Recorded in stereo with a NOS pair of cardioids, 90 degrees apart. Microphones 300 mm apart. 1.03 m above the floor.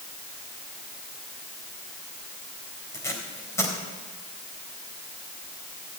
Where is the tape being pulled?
10° left, 3.5 m.